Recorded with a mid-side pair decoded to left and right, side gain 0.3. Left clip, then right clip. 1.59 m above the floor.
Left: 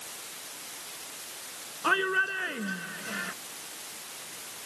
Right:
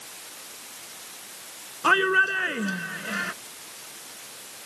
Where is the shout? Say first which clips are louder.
Right 6 dB; 60° right.